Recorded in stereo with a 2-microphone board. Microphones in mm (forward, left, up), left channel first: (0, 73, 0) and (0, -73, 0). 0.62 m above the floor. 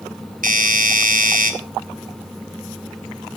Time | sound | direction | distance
0.4 | a doorbell | 70° right (ahead or behind) | 3.5 m